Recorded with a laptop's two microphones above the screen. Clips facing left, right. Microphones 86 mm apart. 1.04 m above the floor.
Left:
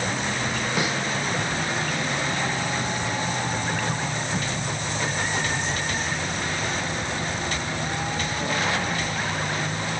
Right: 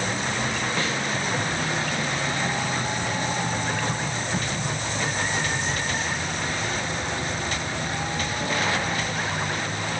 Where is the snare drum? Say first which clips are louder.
Left 3 dB; 15° left (ahead or behind), 2.5 m.